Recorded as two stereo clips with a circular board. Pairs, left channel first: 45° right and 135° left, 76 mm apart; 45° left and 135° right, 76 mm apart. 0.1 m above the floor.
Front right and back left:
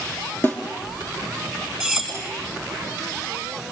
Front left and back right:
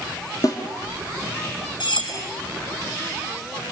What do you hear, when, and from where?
0.4 s a snare drum: 15° left, 3.5 m
1.8 s cutlery clinking: 40° left, 4.5 m